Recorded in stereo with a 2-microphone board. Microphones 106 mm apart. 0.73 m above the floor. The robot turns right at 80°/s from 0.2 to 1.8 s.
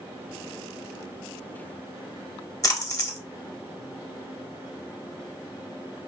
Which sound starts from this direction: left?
A splash, at 2.6 s.